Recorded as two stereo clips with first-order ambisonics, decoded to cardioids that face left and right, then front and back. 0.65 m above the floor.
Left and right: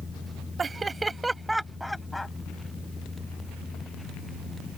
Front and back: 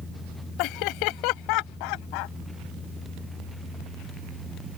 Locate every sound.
0.6 s laughter: 20° right; by 2.3 s 5° left